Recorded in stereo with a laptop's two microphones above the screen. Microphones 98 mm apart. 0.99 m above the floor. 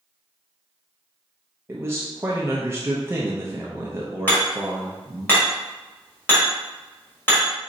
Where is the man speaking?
25° right (ahead or behind), 0.5 m.